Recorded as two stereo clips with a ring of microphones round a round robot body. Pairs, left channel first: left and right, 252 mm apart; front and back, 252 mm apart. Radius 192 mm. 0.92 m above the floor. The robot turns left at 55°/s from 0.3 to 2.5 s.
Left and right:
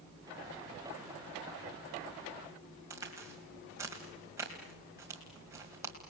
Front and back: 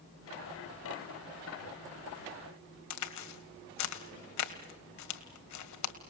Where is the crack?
5° right, 1.9 m.